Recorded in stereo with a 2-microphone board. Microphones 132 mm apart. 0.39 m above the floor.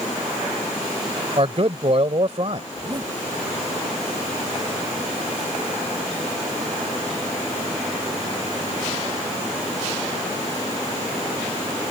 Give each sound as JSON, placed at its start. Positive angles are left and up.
{"t": 1.4, "sound": "a man speaking", "side_deg": -50}
{"t": 2.7, "sound": "a zipper", "side_deg": -35}